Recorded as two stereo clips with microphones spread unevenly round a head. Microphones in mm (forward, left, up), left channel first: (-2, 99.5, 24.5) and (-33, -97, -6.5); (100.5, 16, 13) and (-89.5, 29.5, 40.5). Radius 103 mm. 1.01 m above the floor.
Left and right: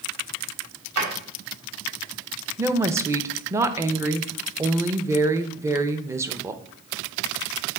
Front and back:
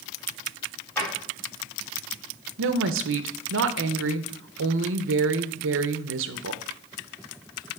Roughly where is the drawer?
Right.